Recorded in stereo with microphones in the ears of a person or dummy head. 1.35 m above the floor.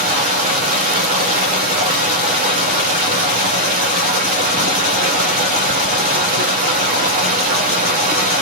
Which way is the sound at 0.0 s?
45° right (ahead or behind).